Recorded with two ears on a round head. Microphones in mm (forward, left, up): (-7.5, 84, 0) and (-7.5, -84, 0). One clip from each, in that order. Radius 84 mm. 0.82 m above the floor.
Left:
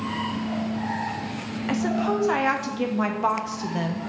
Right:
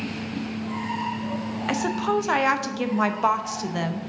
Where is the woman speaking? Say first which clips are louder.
Right 1 dB; 25° right (ahead or behind), 0.6 m.